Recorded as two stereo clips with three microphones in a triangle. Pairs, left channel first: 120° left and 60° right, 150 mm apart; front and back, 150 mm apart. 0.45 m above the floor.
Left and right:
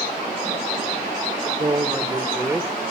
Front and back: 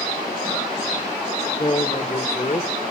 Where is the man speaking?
30° right, 1.3 m; by 2.7 s 15° left, 1.6 m.